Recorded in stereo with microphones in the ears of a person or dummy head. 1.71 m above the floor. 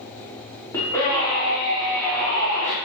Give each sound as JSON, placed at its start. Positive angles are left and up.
{"t": 0.7, "sound": "a scream", "side_deg": 20, "distance_m": 5.5}